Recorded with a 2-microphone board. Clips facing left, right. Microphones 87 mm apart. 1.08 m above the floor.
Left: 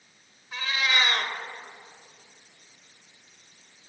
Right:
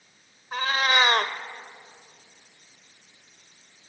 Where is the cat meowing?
50° right (ahead or behind), 1.4 m.